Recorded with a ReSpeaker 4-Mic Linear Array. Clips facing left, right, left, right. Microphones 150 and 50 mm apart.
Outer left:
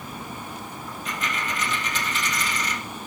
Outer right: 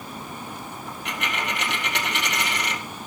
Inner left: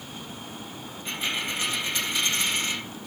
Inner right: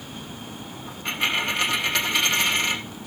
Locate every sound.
0.9 s a dropped coin: 70° right (ahead or behind), 2 m